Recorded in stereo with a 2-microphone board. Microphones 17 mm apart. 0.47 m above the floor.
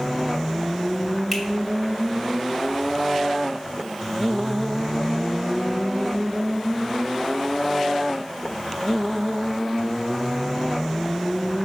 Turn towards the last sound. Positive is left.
turn(degrees=0)  # may be behind; listen again after turning